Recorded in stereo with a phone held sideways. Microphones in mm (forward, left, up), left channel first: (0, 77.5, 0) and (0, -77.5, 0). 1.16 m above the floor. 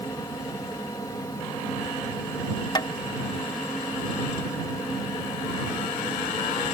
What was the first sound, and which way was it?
A fan, 25° left (ahead or behind).